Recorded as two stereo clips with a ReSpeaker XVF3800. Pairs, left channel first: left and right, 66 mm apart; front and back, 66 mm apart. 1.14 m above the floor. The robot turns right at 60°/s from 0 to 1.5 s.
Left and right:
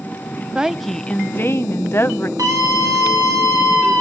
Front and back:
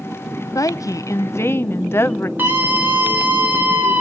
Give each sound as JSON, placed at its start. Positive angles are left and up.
{"t": 0.6, "sound": "a woman speaking", "azimuth_deg": -15, "distance_m": 0.7}
{"t": 2.4, "sound": "a scream", "azimuth_deg": -120, "distance_m": 2.5}